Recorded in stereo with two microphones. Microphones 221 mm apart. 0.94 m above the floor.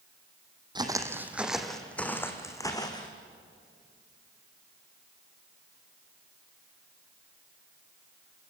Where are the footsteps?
20° right (ahead or behind), 1.8 m; by 3.1 s 20° left (ahead or behind), 3 m.